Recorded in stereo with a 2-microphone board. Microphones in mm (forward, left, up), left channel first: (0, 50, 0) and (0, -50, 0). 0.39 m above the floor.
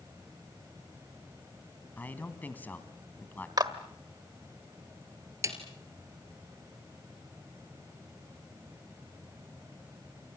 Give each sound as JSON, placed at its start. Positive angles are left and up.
{"t": 2.0, "sound": "a man speaking", "side_deg": 20, "distance_m": 2.5}
{"t": 3.6, "sound": "a clap", "side_deg": -45, "distance_m": 1.5}
{"t": 5.4, "sound": "a snare drum", "side_deg": -35, "distance_m": 3.0}